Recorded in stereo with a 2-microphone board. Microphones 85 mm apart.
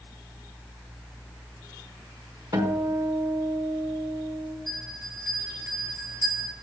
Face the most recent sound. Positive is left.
turn(degrees=-40)  # may be behind; listen again after turning